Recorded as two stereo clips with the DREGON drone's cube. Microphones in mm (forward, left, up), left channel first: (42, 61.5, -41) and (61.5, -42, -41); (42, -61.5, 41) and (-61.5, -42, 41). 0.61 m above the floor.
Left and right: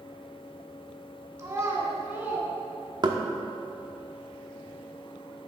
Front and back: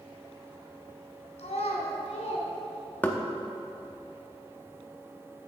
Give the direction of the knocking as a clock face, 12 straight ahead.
3 o'clock.